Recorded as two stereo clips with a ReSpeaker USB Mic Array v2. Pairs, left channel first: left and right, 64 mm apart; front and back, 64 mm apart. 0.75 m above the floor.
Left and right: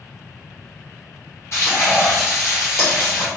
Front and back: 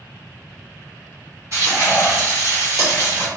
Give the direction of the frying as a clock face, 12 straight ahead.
7 o'clock.